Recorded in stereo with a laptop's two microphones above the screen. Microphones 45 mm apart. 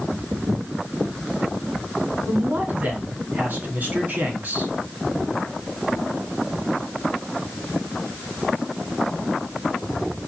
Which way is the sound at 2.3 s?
45° right (ahead or behind).